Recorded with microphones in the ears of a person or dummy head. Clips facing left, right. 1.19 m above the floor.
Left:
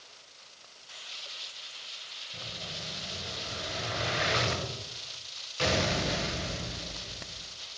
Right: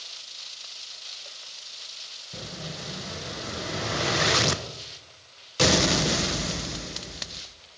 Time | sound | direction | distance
2.3 | an explosion | 60° right (ahead or behind) | 1.1 m